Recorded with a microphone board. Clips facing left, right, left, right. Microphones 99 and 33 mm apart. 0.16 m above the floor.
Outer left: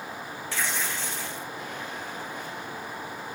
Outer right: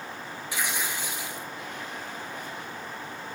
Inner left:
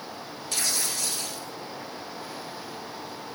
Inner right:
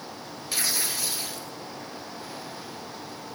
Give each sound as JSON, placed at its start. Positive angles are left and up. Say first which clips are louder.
{"t": 0.5, "sound": "tearing paper", "louder": "even, inner right 1 dB", "side_deg": -15, "distance_m": 1.5}